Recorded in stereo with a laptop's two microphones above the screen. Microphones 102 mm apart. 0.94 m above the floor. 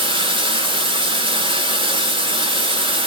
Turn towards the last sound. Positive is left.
turn(degrees=-55)  # may be behind; listen again after turning